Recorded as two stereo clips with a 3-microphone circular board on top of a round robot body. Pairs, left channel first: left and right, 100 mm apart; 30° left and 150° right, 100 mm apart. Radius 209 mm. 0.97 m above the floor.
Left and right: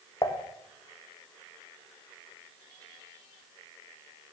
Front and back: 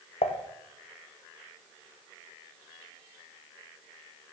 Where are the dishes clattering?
35° left, 1.0 m.